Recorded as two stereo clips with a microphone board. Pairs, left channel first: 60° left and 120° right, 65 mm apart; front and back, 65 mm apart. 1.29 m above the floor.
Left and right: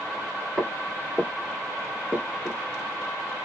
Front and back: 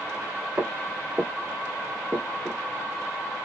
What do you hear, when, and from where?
0.6 s footsteps: 170° right, 1.5 m; by 2.6 s 30° left, 1.3 m